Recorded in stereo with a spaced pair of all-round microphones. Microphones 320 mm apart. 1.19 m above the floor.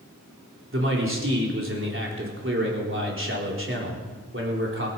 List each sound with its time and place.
0.7 s a man speaking: 40° right (ahead or behind), 3.5 m